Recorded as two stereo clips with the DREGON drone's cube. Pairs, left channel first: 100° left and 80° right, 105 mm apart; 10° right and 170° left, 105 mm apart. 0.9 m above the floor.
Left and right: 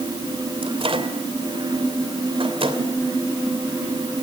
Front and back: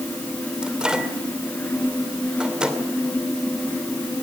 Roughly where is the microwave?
Right.